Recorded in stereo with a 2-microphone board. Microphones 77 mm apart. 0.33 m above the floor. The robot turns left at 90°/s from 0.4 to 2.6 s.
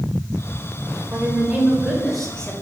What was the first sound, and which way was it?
A woman speaking, 25° right (ahead or behind).